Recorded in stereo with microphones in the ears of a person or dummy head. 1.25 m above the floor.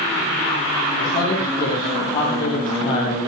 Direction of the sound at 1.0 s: 30° left (ahead or behind).